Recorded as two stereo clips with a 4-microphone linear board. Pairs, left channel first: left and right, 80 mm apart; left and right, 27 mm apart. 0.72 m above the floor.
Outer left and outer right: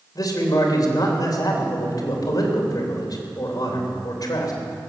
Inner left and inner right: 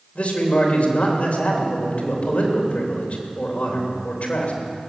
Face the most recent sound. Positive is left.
turn(degrees=55)  # may be behind; listen again after turning